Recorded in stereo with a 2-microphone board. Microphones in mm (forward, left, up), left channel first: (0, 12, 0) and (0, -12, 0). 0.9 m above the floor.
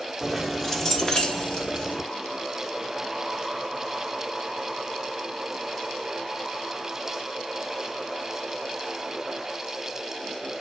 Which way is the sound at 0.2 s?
Centre (ahead or behind).